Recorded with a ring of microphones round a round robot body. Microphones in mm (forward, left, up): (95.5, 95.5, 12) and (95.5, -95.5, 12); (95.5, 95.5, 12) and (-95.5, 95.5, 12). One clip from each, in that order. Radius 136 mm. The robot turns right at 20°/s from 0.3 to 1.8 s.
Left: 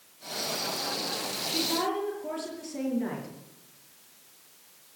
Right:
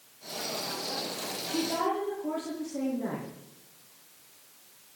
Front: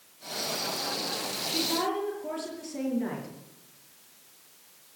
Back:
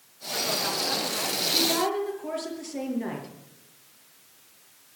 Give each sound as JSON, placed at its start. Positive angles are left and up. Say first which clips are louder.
{"t": 1.5, "sound": "a woman speaking", "louder": "even, back 4 dB", "azimuth_deg": 125, "distance_m": 6.5}